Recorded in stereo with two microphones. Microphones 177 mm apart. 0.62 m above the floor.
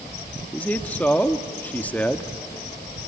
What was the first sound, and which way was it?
A man speaking, 10° left (ahead or behind).